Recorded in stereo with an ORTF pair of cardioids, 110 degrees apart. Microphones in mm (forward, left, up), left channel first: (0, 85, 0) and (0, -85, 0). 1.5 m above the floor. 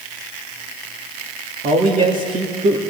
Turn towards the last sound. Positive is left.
turn(degrees=-45)